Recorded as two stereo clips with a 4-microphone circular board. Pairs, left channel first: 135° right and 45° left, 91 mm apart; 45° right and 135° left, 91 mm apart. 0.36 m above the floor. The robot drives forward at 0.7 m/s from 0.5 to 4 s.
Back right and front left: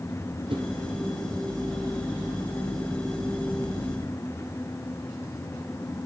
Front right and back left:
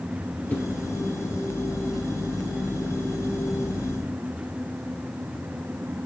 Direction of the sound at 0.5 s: 25° left.